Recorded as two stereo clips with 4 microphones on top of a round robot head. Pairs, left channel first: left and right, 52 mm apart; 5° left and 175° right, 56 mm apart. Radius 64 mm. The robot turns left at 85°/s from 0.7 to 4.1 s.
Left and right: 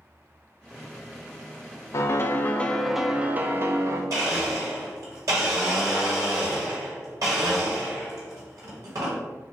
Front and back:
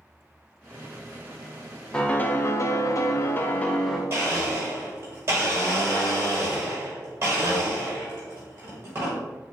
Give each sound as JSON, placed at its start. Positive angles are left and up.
{"t": 1.9, "sound": "a piano", "azimuth_deg": 85, "distance_m": 0.5}
{"t": 4.1, "sound": "a blender", "azimuth_deg": -115, "distance_m": 1.3}